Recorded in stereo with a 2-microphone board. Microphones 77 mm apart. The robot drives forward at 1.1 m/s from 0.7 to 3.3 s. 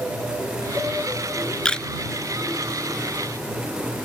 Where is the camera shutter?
10° left (ahead or behind).